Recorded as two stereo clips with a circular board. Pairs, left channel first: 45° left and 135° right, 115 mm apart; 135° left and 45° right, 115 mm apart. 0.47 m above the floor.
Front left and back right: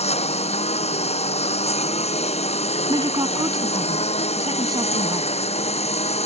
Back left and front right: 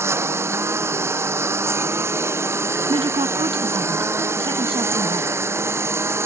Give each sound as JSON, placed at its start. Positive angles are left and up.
{"t": 0.0, "sound": "a lawn mower", "azimuth_deg": 25}
{"t": 2.9, "sound": "a woman speaking", "azimuth_deg": -80}